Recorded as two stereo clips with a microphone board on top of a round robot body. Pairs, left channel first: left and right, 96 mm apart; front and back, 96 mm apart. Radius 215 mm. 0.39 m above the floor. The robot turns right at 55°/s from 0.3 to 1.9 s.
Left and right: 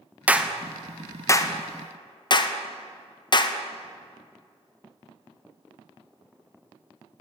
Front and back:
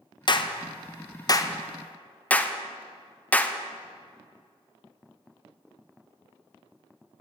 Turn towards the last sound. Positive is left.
turn(degrees=70)